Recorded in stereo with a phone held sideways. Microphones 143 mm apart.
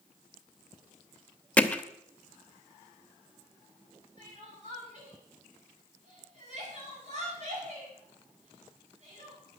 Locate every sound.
1.6 s hammering: 10° left (ahead or behind), 0.9 m
4.2 s crying: 55° right (ahead or behind), 7.5 m